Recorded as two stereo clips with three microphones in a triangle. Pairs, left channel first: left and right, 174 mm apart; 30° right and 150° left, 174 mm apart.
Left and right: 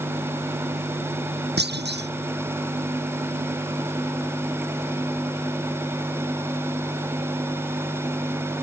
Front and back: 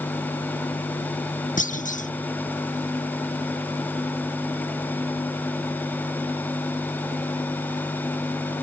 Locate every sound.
1.6 s a clunk: 75° right